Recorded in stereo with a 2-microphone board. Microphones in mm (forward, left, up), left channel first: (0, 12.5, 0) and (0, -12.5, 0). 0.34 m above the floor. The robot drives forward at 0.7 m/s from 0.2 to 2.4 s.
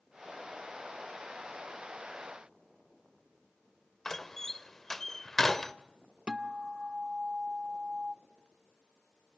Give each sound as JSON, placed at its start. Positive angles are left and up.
{"t": 4.0, "sound": "a door slam", "side_deg": 10, "distance_m": 0.7}
{"t": 6.3, "sound": "a guitar", "side_deg": -40, "distance_m": 0.6}